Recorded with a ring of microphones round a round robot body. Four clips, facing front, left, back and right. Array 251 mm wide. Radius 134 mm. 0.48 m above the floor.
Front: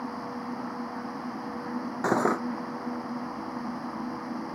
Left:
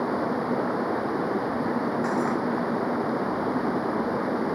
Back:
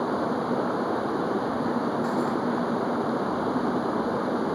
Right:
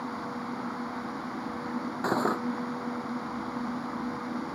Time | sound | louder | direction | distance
0.0 | running water | left 9 dB, back 9 dB | 130° left | ?
2.0 | cutlery clinking | left 3 dB, even | 20° right | ?